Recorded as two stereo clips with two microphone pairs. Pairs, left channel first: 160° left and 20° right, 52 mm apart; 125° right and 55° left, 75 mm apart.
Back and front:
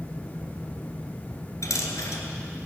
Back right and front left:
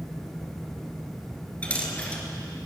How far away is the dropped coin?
About 1.7 m.